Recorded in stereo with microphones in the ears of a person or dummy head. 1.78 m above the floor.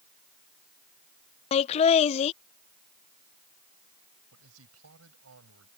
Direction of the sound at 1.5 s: 35° left (ahead or behind).